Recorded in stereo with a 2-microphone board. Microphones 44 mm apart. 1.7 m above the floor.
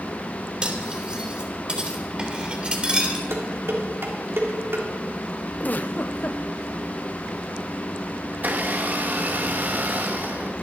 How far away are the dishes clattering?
About 3 m.